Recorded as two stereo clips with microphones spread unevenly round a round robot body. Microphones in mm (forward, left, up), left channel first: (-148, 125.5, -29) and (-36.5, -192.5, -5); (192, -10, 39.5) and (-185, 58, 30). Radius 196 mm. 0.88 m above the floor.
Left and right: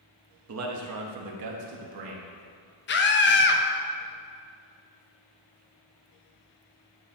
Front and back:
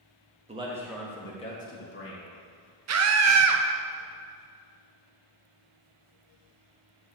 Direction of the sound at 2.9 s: 145° left.